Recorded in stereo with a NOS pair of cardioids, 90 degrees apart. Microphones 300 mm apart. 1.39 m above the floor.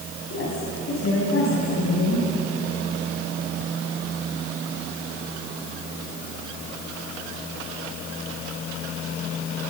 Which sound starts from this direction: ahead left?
A woman speaking, at 0.3 s.